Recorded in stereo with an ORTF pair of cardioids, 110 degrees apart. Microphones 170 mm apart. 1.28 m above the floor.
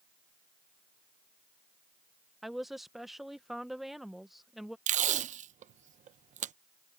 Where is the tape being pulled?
45° right.